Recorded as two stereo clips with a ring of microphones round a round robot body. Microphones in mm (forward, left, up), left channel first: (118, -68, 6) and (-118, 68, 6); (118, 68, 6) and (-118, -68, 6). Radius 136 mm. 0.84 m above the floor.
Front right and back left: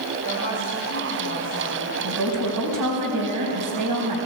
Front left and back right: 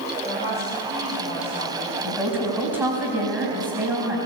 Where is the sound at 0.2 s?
100° left, 5 m; by 1.9 s 90° left, 4 m.